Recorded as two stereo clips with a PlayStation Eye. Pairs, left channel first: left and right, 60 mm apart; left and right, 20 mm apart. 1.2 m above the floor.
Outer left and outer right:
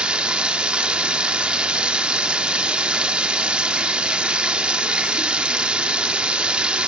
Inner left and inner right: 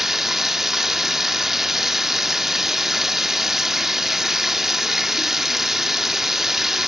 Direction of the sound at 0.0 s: 20° right (ahead or behind).